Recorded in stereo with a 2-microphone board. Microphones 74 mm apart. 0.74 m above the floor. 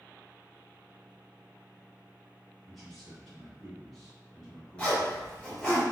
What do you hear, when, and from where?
2.6 s a man speaking: 5° left (ahead or behind), 1.5 m
4.8 s a zipper: 15° left (ahead or behind), 1.6 m